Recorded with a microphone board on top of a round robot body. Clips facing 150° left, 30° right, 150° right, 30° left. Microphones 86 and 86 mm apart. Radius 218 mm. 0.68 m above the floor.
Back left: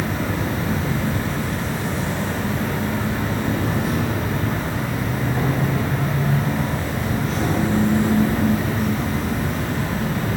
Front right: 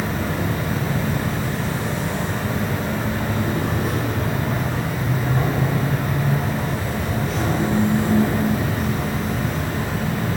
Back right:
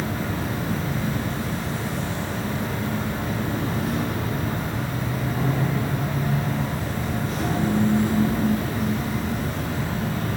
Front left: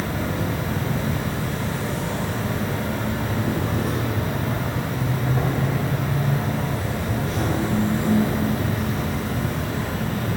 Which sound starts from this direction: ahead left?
An insect, at 0.0 s.